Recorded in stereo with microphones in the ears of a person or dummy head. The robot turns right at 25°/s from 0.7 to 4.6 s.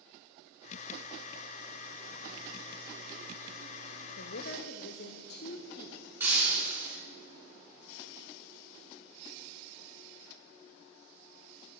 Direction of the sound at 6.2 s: 10° right (ahead or behind).